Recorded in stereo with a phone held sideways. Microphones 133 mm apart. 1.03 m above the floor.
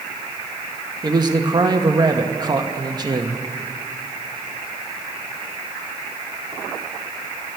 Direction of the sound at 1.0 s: 30° right (ahead or behind).